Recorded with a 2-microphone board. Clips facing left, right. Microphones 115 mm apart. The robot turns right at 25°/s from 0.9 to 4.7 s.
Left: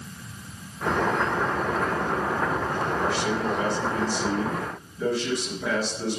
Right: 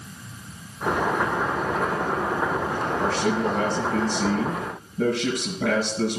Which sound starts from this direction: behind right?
A man speaking, at 3.0 s.